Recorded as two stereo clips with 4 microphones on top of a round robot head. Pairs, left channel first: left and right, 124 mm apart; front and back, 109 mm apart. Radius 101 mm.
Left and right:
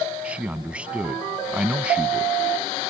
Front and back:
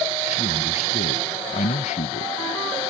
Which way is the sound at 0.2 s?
10° right.